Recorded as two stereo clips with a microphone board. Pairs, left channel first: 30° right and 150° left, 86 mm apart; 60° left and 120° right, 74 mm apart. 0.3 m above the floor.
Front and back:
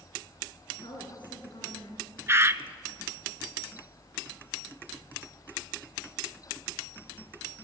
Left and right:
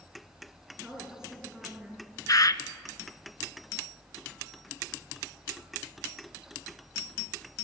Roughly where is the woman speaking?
Ahead right.